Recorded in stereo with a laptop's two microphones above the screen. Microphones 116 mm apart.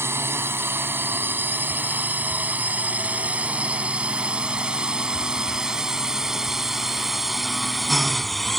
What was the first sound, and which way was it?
A drone, 20° right (ahead or behind).